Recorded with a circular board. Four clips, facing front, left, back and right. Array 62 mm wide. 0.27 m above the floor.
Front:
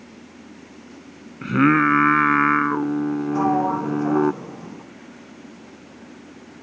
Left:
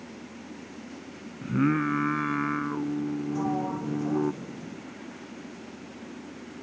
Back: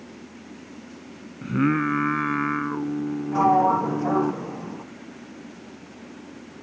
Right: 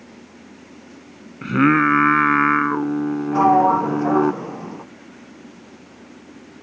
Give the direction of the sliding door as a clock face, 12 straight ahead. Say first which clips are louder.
Right 19 dB, back 4 dB; 3 o'clock.